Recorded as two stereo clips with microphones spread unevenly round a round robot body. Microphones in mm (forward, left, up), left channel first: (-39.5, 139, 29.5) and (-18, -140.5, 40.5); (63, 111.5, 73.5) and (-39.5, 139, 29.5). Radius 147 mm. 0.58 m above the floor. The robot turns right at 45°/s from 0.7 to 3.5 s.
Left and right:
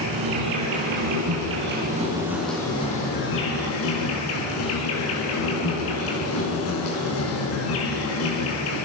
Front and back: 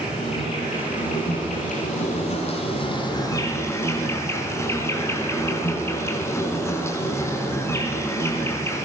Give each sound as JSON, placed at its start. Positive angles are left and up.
{"t": 0.0, "sound": "an insect", "azimuth_deg": -75, "distance_m": 7.0}